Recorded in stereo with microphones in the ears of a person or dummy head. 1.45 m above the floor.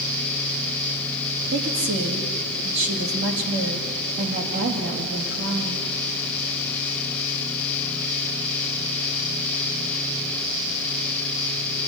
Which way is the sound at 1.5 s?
65° right (ahead or behind).